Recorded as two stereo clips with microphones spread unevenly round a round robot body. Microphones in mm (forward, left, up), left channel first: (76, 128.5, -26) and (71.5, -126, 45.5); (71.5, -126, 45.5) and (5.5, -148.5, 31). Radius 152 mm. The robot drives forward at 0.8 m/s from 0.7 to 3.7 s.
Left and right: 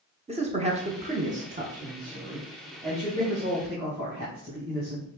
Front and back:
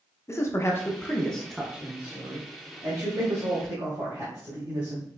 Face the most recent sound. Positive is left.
turn(degrees=-175)